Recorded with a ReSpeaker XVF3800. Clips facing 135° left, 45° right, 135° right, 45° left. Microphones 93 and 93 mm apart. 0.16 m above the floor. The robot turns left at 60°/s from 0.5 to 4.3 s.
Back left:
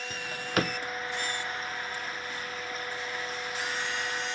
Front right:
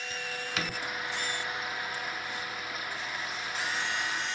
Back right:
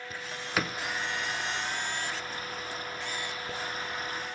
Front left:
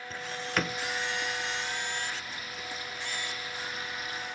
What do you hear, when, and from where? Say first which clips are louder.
0.1 s a drawer: back left 7 dB, front left 1 dB; 145° left, 0.6 m; by 0.8 s 130° left, 0.6 m